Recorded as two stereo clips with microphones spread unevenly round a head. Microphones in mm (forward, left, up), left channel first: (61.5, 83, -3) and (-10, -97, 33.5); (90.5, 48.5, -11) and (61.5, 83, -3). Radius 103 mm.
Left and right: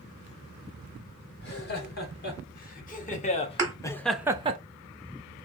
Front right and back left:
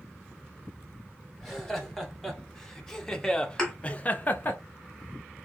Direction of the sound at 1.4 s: 40° left.